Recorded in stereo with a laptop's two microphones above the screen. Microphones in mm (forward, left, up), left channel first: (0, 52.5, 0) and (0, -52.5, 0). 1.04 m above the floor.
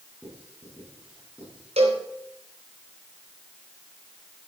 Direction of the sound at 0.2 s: 10° right (ahead or behind).